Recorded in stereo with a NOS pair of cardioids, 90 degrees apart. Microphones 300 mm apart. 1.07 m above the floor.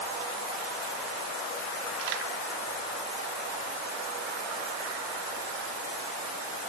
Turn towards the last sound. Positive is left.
No sound to turn to.